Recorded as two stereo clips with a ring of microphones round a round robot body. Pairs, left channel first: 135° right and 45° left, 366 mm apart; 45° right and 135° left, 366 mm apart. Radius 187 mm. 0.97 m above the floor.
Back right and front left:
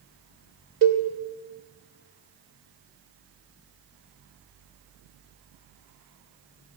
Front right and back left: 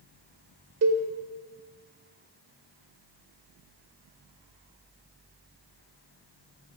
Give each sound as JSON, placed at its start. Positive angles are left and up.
{"t": 0.8, "sound": "a cowbell", "azimuth_deg": 85, "distance_m": 1.4}